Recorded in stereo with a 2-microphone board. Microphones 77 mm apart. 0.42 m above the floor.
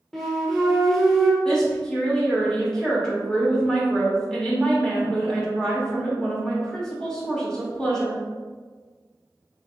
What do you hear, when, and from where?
0.1 s a flute: 5° left (ahead or behind), 0.8 m
1.4 s a woman speaking: 10° left (ahead or behind), 0.9 m